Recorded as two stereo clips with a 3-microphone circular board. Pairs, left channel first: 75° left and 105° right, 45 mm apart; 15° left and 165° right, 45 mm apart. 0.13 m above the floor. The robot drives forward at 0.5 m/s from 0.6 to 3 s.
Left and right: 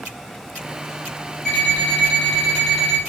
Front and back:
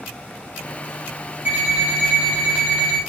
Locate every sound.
1.4 s an alarm clock: 145° left, 2.5 m; by 3.0 s 155° left, 3.5 m